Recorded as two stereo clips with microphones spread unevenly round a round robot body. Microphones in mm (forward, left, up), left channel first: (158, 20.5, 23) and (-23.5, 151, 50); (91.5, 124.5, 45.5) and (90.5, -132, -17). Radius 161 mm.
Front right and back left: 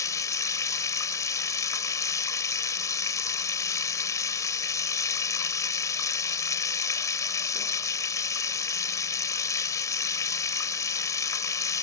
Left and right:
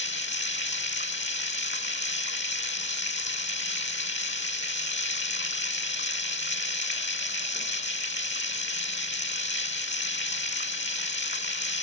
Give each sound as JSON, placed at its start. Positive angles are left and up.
{"t": 0.0, "sound": "running water", "azimuth_deg": 40}